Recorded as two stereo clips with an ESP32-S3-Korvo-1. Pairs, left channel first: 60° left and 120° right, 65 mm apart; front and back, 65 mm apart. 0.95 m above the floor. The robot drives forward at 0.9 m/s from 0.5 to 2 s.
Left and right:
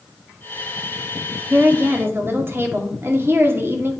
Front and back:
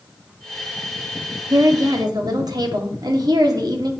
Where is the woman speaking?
175° right, 1.5 m.